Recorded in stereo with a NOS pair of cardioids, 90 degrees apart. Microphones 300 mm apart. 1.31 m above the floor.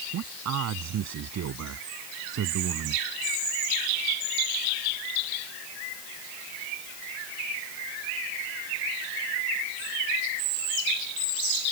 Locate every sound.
0.1 s a man speaking: 65° right; by 3.1 s 60° right